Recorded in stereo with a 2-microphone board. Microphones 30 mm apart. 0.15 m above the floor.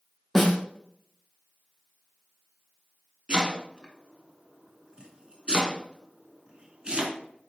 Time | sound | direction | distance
0.3 | a snare drum | centre (ahead or behind) | 3 m
3.3 | chopping | 35° right (ahead or behind) | 1.4 m